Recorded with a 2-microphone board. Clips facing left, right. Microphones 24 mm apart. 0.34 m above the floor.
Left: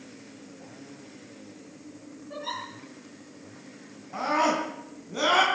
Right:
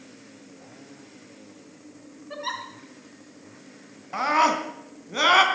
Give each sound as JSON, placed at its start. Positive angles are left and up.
{"t": 2.3, "sound": "a giggle", "side_deg": -40, "distance_m": 5.0}
{"t": 4.1, "sound": "a scream", "side_deg": -40, "distance_m": 3.0}